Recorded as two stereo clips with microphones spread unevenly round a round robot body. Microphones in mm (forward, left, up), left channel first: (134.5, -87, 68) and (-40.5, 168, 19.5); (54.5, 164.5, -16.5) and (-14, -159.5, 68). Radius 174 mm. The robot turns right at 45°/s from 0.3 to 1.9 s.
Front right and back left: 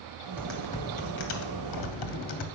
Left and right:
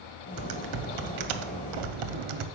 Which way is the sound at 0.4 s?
150° right.